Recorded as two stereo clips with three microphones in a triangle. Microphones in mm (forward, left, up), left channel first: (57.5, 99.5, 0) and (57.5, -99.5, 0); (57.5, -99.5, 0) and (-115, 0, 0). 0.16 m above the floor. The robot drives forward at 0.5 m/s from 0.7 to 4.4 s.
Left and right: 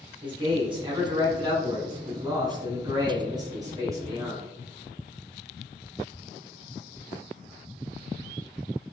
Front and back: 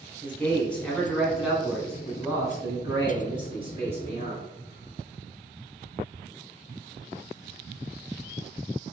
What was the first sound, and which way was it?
A man speaking, 105° right.